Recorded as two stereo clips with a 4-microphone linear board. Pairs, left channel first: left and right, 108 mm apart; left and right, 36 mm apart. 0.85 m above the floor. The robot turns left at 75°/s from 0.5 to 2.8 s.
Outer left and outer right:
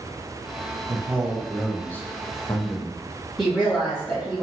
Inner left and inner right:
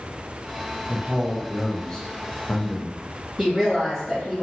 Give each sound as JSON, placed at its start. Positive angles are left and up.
{"t": 0.9, "sound": "a man speaking", "azimuth_deg": -125, "distance_m": 0.5}
{"t": 3.4, "sound": "a woman speaking", "side_deg": 0, "distance_m": 1.7}